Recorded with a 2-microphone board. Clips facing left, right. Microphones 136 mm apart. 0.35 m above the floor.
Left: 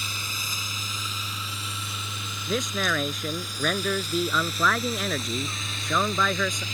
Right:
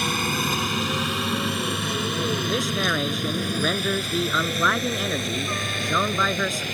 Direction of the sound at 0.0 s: 65° right (ahead or behind).